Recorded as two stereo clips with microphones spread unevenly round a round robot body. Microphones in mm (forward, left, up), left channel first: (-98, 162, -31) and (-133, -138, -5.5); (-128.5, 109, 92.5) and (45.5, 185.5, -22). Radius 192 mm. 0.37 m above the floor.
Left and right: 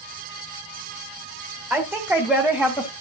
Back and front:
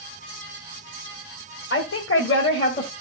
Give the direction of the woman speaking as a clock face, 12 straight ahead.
6 o'clock.